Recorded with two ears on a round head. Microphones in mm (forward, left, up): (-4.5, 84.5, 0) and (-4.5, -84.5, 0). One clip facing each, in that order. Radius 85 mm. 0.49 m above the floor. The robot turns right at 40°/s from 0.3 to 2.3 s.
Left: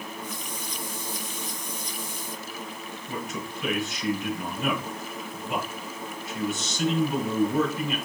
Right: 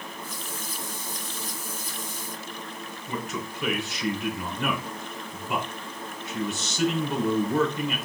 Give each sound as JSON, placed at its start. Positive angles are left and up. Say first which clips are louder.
{"t": 3.1, "sound": "a man speaking", "louder": "right 1 dB", "side_deg": -60, "distance_m": 4.5}